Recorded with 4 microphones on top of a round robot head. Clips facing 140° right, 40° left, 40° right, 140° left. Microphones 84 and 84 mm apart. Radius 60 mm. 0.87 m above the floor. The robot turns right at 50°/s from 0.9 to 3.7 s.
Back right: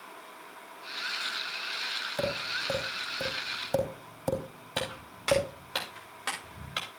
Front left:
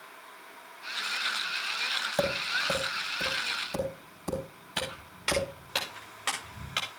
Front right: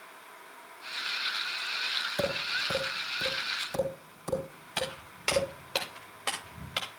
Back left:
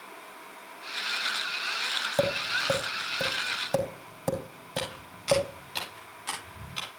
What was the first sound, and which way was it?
Tapping, 105° left.